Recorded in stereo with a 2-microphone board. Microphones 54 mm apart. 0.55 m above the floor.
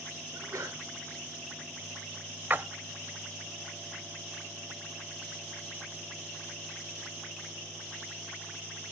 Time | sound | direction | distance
0.3 | a sneeze | 75° right (ahead or behind) | 7.5 m
2.5 | a splash | 35° right (ahead or behind) | 0.7 m